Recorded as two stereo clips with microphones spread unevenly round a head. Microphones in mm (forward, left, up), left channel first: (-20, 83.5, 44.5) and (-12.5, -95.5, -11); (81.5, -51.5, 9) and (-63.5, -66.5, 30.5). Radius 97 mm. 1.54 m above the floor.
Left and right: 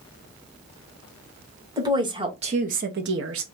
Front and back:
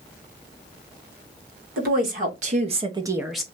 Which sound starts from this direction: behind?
A woman speaking, at 1.8 s.